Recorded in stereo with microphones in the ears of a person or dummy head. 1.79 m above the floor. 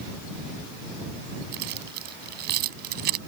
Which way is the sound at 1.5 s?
55° right (ahead or behind).